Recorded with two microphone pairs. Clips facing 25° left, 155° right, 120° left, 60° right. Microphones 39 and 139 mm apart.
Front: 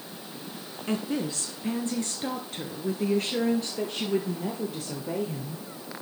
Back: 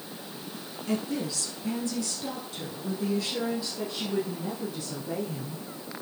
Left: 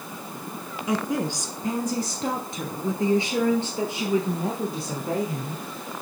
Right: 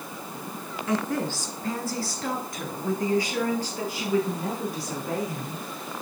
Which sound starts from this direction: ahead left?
A woman speaking, at 0.9 s.